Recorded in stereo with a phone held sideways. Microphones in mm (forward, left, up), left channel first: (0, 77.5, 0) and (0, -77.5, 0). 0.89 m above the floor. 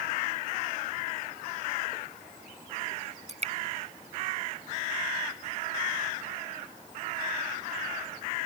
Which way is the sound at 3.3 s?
45° right (ahead or behind).